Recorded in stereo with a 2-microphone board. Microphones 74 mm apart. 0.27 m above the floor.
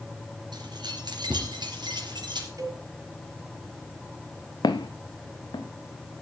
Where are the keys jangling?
75° right (ahead or behind), 3 m; by 2.5 s 80° right, 4.5 m.